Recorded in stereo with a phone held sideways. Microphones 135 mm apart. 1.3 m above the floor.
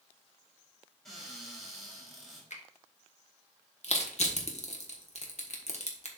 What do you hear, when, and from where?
1.1 s a cupboard door: centre (ahead or behind), 3.5 m
2.5 s a finger snap: 65° left (ahead or behind), 1.2 m
3.8 s crushing: 60° left (ahead or behind), 1.3 m